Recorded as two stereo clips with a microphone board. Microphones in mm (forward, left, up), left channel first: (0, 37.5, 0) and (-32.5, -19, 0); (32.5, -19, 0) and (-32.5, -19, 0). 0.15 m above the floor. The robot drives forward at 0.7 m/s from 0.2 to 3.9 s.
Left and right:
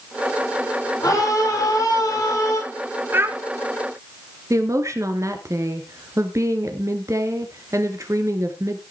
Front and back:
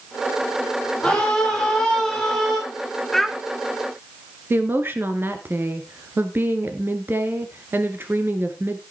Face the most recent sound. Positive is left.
turn(degrees=-135)